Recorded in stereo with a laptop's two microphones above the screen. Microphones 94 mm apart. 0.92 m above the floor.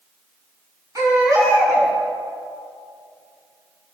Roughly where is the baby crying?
Right.